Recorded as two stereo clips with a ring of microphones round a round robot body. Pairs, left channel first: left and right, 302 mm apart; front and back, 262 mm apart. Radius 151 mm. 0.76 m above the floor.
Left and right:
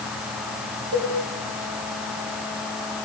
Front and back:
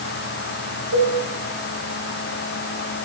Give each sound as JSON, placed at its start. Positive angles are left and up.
{"t": 0.9, "sound": "a cowbell", "azimuth_deg": -140, "distance_m": 3.5}